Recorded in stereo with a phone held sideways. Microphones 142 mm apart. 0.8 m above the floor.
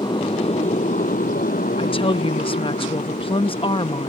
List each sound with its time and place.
0.0 s a motorcycle: 30° left (ahead or behind); by 4.1 s 50° left (ahead or behind)
1.8 s a woman speaking: 40° left (ahead or behind)